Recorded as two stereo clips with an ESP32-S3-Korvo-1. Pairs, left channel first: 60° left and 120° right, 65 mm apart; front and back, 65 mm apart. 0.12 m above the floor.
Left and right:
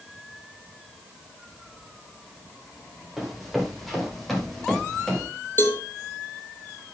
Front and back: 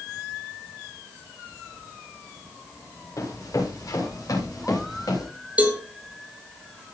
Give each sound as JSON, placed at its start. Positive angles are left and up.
{"t": 3.2, "sound": "running footsteps", "azimuth_deg": -30, "distance_m": 9.0}
{"t": 5.6, "sound": "a cowbell", "azimuth_deg": 110, "distance_m": 2.5}